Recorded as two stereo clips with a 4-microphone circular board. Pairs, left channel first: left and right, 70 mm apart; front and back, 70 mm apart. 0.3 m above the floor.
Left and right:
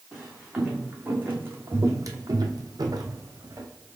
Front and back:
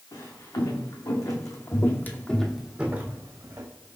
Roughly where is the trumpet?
I don't hear a trumpet.